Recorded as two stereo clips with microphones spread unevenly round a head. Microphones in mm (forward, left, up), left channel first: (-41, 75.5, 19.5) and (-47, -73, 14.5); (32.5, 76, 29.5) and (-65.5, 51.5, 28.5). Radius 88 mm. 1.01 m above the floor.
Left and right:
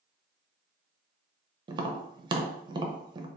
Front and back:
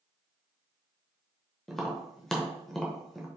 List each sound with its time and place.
1.7 s tapping: 75° right, 0.6 m